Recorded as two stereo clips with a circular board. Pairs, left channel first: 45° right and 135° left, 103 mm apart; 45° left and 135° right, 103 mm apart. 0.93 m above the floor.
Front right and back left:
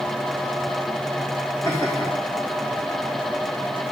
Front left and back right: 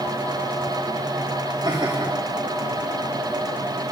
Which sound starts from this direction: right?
Laughter, at 1.6 s.